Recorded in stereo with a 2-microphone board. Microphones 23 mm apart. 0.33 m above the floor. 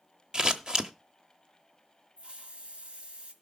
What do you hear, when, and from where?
0.3 s scissors: 30° right (ahead or behind), 1.0 m
2.2 s a hiss: 45° right (ahead or behind), 1.5 m